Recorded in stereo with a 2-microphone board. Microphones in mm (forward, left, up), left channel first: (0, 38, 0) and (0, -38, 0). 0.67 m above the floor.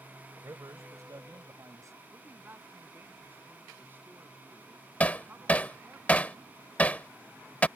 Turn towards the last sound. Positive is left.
turn(degrees=20)  # may be behind; listen again after turning